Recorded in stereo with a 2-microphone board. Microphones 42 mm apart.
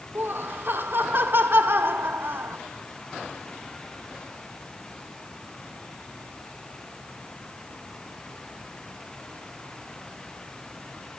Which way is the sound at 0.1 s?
60° right (ahead or behind).